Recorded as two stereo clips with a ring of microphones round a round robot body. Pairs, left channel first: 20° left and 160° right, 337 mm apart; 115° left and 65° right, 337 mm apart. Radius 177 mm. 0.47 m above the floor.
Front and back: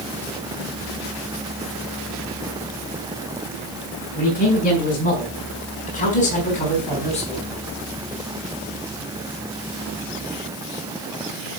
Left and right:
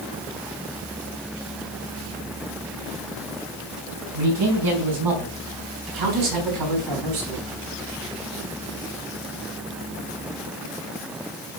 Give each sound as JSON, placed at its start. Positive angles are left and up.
{"t": 4.1, "sound": "a man speaking", "azimuth_deg": -45, "distance_m": 6.5}